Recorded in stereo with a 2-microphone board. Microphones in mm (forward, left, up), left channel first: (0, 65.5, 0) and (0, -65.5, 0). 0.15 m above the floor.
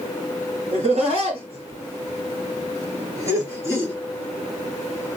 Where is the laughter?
55° right (ahead or behind), 2 m; by 3.9 s 15° right (ahead or behind), 1.9 m.